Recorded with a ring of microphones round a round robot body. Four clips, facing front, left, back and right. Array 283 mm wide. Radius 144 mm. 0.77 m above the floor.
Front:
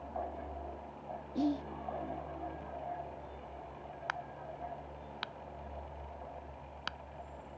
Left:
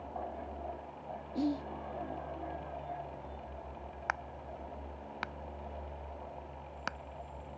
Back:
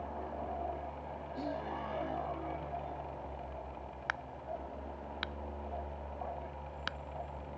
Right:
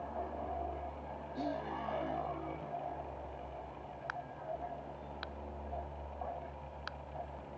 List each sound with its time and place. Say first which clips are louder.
1.4 s whispering: left 5 dB, front 7 dB; 40° left
4.1 s a crack: left 3 dB, back 2 dB; 105° left